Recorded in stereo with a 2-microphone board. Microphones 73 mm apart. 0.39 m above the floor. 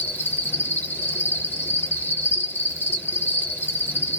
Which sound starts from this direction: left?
An insect, at 0.0 s.